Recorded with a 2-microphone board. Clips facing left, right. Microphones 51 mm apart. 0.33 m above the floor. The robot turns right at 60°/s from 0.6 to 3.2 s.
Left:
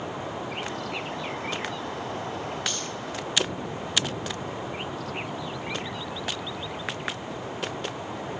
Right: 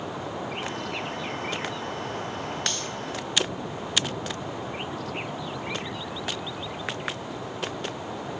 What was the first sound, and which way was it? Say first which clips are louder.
Cutlery clinking: even; 5° left (ahead or behind).